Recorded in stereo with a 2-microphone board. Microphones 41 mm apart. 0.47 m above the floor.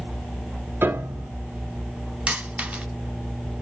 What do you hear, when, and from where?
0.8 s a piano: 65° right (ahead or behind), 0.6 m
2.3 s a dropped coin: 30° right (ahead or behind), 0.8 m